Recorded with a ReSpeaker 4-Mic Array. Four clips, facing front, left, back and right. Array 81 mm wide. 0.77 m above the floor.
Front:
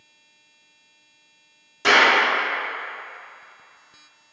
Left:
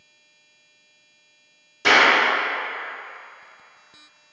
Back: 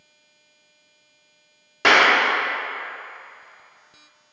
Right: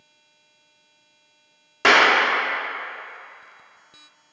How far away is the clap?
About 1.7 m.